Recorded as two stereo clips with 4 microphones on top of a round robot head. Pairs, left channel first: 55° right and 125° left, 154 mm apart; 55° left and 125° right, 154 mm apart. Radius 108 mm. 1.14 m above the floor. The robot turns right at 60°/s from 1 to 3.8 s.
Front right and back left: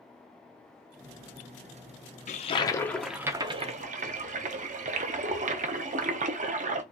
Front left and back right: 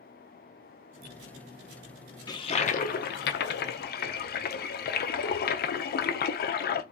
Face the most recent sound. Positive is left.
turn(degrees=80)